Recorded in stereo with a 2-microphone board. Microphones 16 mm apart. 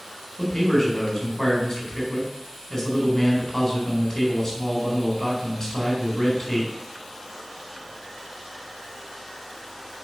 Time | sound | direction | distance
0.4 | a man speaking | 20° left (ahead or behind) | 3.5 m